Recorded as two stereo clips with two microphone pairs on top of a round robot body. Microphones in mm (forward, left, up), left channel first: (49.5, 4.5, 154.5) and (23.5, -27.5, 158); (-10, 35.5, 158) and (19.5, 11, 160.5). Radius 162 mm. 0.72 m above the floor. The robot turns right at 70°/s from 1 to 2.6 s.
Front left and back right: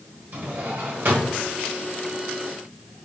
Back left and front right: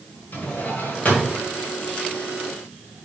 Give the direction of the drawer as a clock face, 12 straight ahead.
6 o'clock.